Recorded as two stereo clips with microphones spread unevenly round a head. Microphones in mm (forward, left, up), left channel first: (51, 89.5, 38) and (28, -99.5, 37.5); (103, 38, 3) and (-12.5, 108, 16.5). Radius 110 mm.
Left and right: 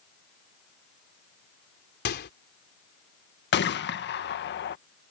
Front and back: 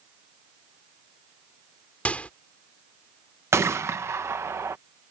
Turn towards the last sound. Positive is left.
turn(degrees=75)